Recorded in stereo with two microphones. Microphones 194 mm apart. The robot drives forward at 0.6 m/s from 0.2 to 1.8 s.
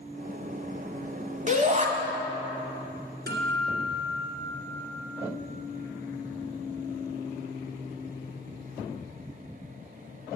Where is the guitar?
60° right (ahead or behind), 1.8 m.